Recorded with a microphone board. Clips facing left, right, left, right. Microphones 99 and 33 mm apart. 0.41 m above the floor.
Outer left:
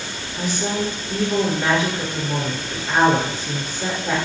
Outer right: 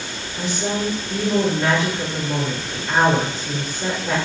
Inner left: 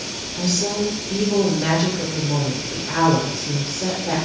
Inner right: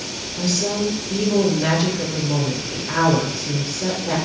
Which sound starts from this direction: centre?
A woman speaking, at 0.4 s.